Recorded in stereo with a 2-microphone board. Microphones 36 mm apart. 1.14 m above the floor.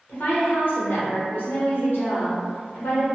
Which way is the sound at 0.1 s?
60° left (ahead or behind).